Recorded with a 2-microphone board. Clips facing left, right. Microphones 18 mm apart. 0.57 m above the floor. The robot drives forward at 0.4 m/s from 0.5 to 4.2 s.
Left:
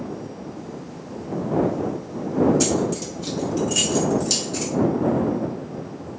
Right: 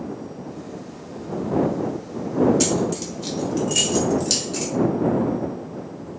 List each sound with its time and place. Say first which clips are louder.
2.6 s keys jangling: even; 15° right (ahead or behind), 1.0 m; by 4.7 s 10° right (ahead or behind), 1.5 m